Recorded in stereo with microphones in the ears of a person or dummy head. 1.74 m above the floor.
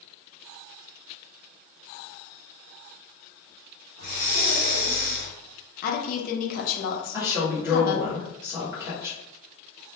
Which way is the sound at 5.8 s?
50° left (ahead or behind).